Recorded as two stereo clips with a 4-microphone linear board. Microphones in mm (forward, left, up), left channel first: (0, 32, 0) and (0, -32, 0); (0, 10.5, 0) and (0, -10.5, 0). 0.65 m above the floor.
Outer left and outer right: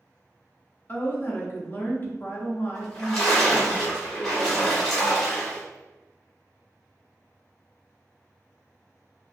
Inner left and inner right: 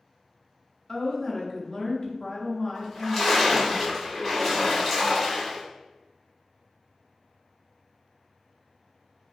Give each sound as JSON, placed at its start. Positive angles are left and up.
{"t": 0.9, "sound": "a woman speaking", "side_deg": 30, "distance_m": 0.6}
{"t": 2.8, "sound": "a splash", "side_deg": 10, "distance_m": 1.1}